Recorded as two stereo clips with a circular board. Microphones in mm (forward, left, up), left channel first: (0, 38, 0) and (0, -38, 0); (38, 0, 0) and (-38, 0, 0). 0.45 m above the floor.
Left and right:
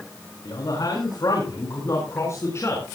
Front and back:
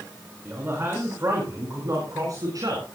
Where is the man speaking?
120° left, 5 m; by 2.8 s 145° left, 4.5 m.